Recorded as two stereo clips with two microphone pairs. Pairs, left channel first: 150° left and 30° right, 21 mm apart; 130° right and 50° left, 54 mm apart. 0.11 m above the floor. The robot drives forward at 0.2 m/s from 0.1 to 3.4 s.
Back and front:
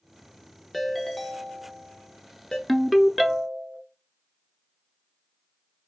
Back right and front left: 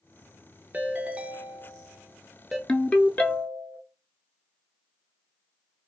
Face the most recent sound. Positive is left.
turn(degrees=-145)